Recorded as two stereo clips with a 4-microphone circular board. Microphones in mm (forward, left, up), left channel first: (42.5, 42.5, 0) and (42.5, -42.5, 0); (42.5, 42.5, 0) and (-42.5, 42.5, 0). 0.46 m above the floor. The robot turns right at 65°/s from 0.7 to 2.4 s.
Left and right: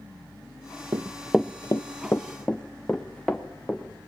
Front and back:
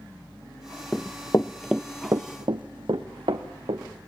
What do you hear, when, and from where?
0.9 s running footsteps: 70° right, 0.7 m; by 3.8 s 175° left, 2.5 m